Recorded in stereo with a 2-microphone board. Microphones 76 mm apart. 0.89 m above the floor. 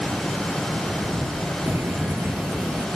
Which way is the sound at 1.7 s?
35° right (ahead or behind).